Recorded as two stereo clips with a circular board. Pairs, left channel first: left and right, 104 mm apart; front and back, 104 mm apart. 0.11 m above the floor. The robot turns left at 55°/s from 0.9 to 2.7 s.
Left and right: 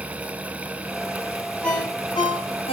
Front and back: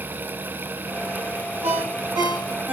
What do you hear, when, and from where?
1.6 s a ringtone: 170° left, 3.5 m; by 2.7 s 110° left, 3.5 m